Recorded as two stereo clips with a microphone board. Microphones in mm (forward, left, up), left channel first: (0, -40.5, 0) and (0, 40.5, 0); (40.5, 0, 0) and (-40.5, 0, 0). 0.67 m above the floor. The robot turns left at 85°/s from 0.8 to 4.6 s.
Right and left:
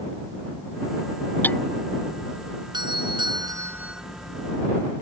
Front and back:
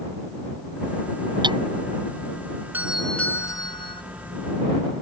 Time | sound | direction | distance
1.4 | hammering | 155° right | ?
2.7 | a doorbell | 115° left | ?